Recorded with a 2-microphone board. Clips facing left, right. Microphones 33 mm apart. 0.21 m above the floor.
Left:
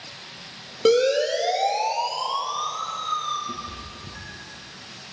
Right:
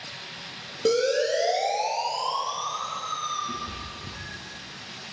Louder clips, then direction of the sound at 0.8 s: Left 4 dB; 55° left (ahead or behind).